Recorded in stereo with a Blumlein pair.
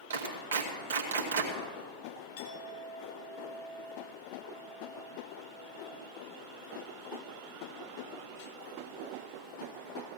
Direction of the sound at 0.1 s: 60° right.